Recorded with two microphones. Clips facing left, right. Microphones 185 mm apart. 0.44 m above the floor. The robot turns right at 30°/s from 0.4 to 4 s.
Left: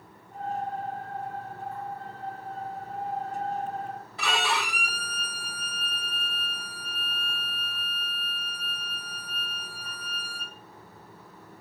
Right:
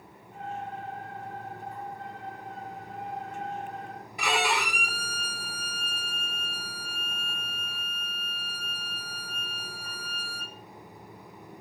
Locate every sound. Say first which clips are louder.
4.2 s a violin: right 2 dB; 15° right (ahead or behind), 0.8 m